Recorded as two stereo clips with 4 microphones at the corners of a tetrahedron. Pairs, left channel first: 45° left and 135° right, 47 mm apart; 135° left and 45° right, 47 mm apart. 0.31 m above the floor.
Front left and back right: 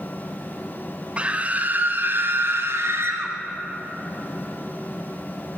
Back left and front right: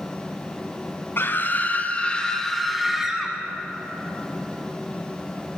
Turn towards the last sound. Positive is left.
turn(degrees=-120)